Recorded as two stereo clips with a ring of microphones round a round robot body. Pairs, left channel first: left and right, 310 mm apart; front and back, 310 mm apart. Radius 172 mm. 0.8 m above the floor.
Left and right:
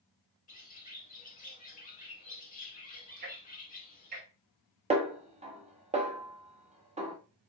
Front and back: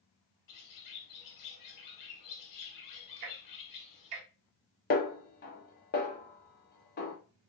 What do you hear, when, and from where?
0.5 s a bird: 25° left, 0.9 m
3.2 s ticking: 155° right, 0.6 m
4.9 s a snare drum: 35° right, 0.7 m